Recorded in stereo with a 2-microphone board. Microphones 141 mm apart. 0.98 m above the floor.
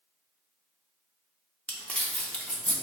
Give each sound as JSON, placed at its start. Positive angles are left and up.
{"t": 1.7, "sound": "crumpling", "side_deg": 10, "distance_m": 0.6}